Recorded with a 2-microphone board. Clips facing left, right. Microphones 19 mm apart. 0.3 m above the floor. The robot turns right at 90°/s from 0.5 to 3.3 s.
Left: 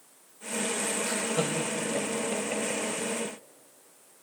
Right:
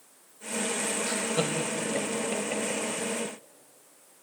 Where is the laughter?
20° right (ahead or behind), 1.2 m; by 2.8 s 10° left (ahead or behind), 1.2 m.